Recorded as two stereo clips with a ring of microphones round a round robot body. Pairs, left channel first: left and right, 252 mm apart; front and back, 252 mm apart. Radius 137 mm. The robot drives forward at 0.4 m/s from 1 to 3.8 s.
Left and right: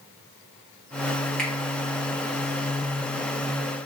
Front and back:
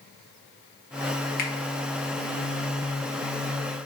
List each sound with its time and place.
1.4 s a finger snap: 5° left, 0.9 m